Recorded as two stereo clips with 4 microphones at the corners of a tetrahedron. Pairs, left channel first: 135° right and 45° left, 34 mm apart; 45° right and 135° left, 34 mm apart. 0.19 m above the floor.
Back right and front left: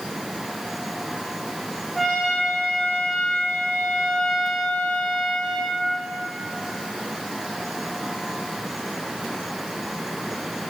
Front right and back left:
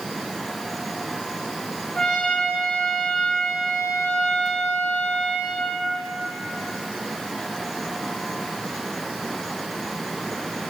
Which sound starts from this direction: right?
A trumpet, at 1.9 s.